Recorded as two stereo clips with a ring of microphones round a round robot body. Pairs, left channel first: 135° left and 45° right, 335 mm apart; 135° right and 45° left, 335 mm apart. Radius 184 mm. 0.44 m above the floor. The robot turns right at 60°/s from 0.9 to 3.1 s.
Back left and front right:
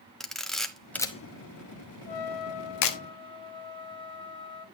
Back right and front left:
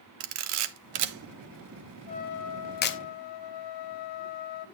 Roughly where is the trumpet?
Behind left.